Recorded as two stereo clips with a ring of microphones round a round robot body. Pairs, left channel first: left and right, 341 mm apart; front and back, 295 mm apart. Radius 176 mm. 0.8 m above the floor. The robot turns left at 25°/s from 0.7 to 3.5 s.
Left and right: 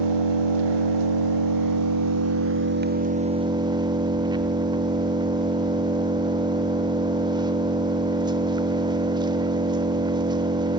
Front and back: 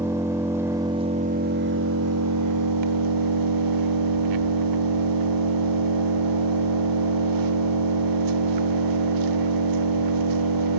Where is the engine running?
95° right, 0.8 m; by 10.8 s 165° right, 0.8 m.